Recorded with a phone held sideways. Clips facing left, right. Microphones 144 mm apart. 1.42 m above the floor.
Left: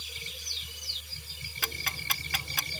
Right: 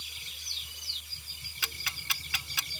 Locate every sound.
0.0 s a machine running: 65° left (ahead or behind)
1.6 s ticking: 50° left (ahead or behind)